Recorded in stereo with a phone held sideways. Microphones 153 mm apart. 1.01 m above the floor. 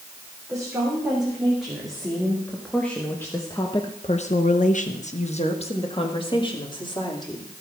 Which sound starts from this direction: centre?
A woman speaking, at 0.5 s.